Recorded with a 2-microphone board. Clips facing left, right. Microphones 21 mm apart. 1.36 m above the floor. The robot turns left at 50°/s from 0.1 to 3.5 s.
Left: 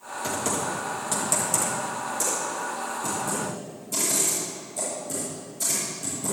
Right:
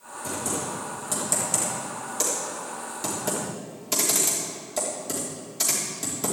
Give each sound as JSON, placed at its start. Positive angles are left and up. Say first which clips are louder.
{"t": 0.2, "sound": "typing on a keyboard", "louder": "left 3 dB", "side_deg": 55, "distance_m": 3.0}